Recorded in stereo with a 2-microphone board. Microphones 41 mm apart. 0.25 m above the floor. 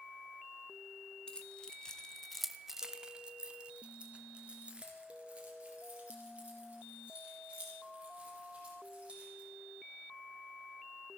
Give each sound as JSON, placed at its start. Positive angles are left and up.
{"t": 1.3, "sound": "keys jangling", "side_deg": 20, "distance_m": 1.4}